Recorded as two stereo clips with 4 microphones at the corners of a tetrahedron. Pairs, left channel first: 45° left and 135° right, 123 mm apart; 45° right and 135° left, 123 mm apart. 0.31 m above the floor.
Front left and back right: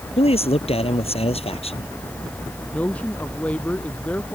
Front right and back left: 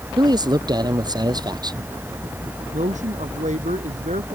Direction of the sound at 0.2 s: 80° left.